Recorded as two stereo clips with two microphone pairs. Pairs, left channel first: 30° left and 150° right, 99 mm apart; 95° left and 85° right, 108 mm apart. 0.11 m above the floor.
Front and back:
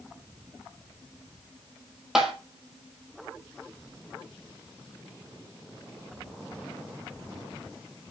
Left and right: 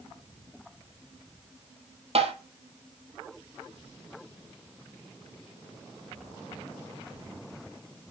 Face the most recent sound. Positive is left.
turn(degrees=-65)